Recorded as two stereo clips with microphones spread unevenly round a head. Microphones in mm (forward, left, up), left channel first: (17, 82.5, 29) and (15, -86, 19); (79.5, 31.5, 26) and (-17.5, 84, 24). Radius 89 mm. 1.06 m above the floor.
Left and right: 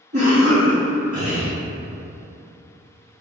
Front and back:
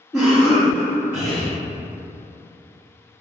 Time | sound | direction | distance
0.1 | a cough | 135° right | 1.7 m